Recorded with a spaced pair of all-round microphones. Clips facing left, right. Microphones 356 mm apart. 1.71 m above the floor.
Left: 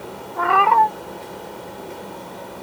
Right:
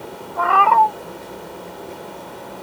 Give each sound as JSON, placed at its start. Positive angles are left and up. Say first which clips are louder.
{"t": 0.4, "sound": "a cat meowing", "louder": "right 1 dB", "side_deg": 35}